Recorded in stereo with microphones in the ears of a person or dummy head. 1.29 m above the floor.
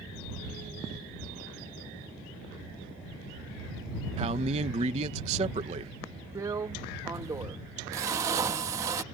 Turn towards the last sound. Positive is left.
turn(degrees=-15)  # may be behind; listen again after turning